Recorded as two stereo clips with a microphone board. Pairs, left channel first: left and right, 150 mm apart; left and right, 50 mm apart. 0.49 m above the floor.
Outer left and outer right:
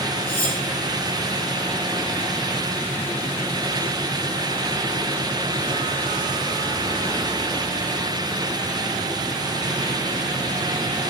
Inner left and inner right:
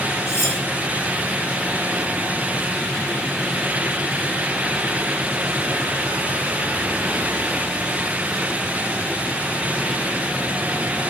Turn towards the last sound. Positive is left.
turn(degrees=75)  # may be behind; listen again after turning